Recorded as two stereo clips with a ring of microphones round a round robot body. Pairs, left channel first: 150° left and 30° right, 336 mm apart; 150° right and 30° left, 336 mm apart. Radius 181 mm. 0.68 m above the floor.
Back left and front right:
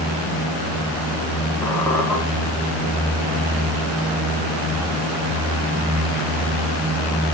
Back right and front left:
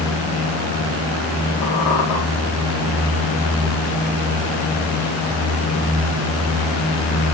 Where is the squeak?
125° right, 5 m.